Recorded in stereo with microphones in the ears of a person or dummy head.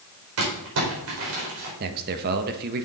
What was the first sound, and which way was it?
Crumpling, 80° right.